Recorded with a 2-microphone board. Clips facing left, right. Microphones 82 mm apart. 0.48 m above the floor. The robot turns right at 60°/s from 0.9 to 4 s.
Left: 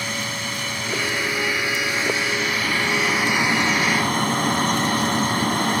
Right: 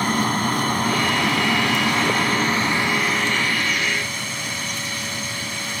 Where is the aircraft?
135° right; by 5.8 s 55° left.